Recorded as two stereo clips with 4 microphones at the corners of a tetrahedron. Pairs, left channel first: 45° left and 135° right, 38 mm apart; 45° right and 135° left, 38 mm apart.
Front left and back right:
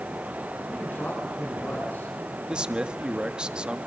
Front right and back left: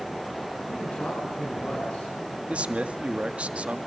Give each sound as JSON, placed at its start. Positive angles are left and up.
{"t": 0.7, "sound": "a man speaking", "azimuth_deg": 0, "distance_m": 7.5}
{"t": 2.5, "sound": "a man speaking", "azimuth_deg": 175, "distance_m": 1.5}